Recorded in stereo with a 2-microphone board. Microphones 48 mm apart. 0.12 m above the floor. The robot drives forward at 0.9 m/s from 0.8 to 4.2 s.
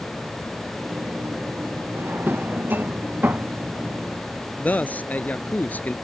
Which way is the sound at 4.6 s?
35° left (ahead or behind).